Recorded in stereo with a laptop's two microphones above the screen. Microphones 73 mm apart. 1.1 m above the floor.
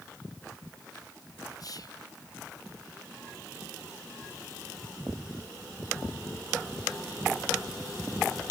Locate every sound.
1.6 s whispering: 55° left (ahead or behind), 0.7 m